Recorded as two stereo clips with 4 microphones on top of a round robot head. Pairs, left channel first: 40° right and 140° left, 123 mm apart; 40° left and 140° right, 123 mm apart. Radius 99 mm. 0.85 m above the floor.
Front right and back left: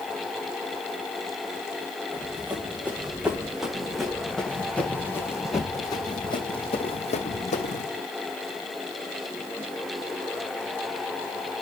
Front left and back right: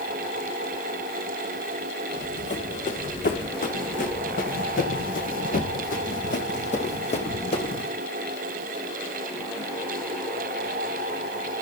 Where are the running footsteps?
65° left, 3.5 m; by 7.9 s 15° right, 2.5 m.